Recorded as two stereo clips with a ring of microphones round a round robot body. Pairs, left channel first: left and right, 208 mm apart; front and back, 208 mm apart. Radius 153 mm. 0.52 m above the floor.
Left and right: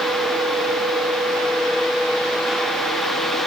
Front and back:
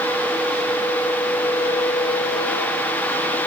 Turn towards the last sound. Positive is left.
No sound to turn to.